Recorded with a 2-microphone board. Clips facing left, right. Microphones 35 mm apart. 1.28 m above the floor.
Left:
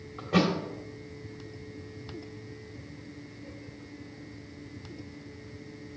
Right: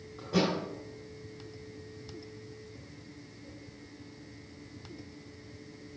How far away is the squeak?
I don't hear a squeak.